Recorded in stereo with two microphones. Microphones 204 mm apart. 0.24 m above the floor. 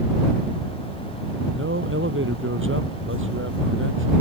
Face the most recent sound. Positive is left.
turn(degrees=-75)  # may be behind; listen again after turning